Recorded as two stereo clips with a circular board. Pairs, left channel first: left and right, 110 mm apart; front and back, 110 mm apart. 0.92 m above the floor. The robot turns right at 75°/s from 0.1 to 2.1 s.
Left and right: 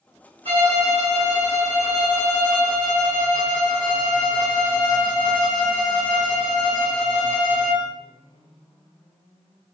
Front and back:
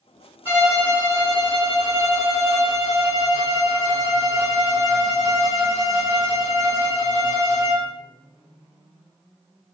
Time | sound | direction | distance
0.5 | a violin | 110° right | 2.0 m